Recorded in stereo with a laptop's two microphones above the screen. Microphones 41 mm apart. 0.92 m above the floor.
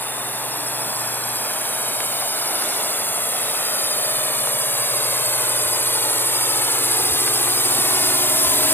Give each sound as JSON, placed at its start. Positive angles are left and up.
{"t": 0.0, "sound": "a drone", "side_deg": 50}